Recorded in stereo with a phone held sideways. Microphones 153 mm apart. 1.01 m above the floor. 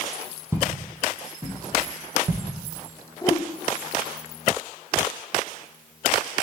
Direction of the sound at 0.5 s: 15° right (ahead or behind).